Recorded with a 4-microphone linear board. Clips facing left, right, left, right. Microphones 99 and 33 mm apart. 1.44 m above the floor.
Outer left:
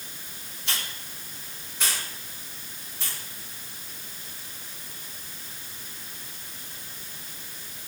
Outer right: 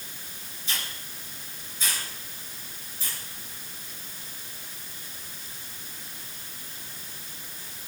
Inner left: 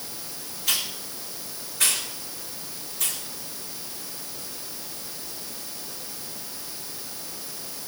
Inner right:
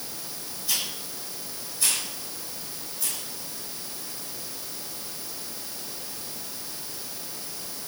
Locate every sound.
0.7 s a hiss: 75° left (ahead or behind), 5.5 m